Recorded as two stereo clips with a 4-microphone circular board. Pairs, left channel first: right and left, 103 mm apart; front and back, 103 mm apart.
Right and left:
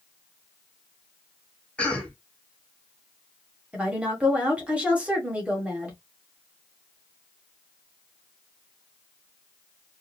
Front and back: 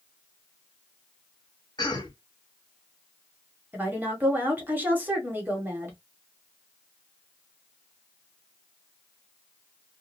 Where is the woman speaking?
145° left, 1.3 m.